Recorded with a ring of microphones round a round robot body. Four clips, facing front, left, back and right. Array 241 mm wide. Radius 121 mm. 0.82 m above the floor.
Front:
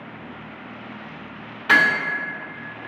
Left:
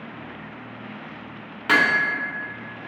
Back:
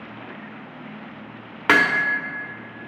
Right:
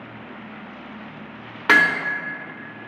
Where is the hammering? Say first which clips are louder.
Right 2 dB, even; 150° right, 2.0 m.